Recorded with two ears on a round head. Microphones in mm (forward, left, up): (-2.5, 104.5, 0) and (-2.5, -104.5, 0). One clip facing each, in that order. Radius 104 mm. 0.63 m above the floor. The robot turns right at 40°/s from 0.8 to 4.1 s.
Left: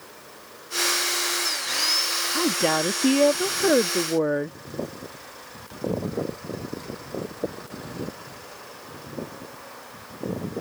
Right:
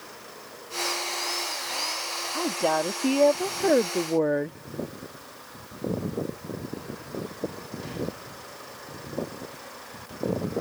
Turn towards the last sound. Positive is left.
turn(degrees=170)